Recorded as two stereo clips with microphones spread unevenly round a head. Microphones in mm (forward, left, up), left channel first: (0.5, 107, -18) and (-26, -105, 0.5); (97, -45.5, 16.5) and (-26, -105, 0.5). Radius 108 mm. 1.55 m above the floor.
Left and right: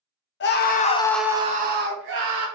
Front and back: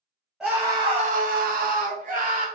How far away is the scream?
About 0.8 m.